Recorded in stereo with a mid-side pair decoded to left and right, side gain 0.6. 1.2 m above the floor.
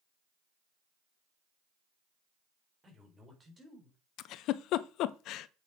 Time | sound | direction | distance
2.8 | a man speaking | 20° right | 4.5 m
4.2 | a giggle | 60° left | 0.7 m